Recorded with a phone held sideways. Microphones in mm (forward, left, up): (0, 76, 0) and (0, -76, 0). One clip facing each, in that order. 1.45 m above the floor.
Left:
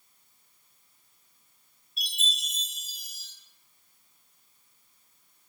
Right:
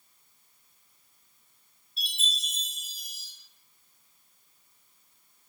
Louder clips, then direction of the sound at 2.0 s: Even; 30° right (ahead or behind).